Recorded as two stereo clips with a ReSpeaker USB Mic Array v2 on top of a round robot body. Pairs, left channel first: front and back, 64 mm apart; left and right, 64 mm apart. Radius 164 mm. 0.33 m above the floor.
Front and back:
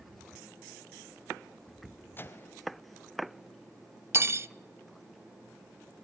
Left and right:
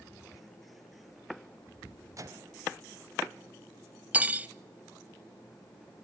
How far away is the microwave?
About 2.0 m.